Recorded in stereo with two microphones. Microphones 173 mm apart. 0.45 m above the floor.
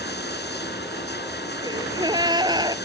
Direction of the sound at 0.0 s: 80° left.